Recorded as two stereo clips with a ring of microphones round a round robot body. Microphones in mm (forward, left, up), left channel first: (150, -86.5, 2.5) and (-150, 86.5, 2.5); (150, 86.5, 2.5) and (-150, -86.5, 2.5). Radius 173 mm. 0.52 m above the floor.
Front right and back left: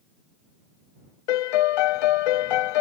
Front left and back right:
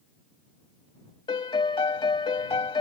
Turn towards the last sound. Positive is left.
turn(degrees=-45)